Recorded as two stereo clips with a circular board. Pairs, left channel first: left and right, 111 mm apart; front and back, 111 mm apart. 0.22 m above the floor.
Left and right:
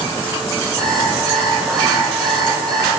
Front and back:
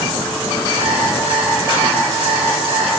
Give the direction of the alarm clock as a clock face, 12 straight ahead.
6 o'clock.